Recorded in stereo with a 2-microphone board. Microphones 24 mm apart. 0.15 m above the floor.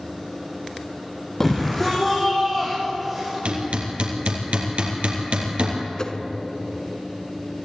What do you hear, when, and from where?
1.4 s a shout: 15° left (ahead or behind), 4.5 m; by 3.4 s 10° right (ahead or behind), 5.5 m
3.5 s hammering: 70° right (ahead or behind), 3.5 m
6.0 s a whoosh: 30° left (ahead or behind), 1.1 m